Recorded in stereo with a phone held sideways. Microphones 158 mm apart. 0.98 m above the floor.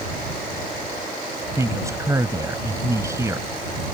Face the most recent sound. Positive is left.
turn(degrees=-20)  # may be behind; listen again after turning